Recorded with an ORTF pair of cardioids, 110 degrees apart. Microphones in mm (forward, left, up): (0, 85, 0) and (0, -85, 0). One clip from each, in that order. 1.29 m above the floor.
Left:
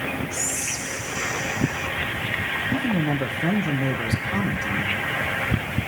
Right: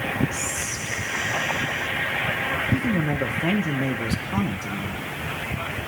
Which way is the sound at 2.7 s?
Straight ahead.